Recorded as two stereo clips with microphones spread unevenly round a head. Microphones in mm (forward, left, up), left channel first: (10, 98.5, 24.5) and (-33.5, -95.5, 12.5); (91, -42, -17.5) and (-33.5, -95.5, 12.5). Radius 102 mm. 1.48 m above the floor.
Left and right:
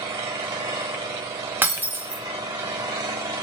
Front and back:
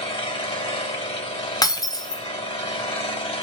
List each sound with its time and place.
0.0 s an engine running: 25° right, 3.5 m
1.6 s breaking glass: 30° right, 1.3 m